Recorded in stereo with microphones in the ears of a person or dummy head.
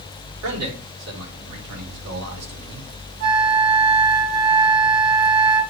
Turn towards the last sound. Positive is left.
turn(degrees=-80)